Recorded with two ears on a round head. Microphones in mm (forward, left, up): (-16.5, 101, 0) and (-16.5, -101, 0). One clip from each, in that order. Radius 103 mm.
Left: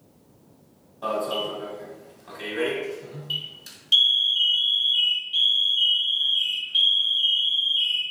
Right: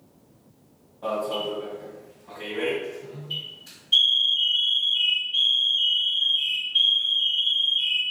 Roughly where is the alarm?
Left.